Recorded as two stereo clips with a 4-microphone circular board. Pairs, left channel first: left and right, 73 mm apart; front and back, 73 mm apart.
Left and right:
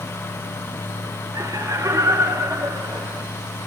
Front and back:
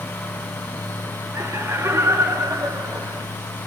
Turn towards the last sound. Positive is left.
turn(degrees=-135)